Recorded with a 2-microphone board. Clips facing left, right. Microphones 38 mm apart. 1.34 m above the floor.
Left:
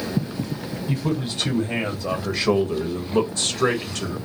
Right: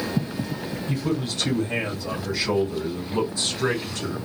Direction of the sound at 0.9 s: 20° left (ahead or behind).